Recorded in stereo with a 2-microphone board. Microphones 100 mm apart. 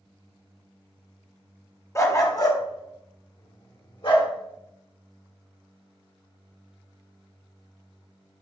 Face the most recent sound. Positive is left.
turn(degrees=55)  # may be behind; listen again after turning